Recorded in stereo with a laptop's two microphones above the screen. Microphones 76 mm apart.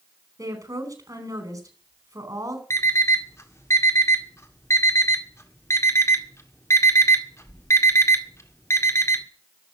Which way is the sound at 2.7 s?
40° left (ahead or behind).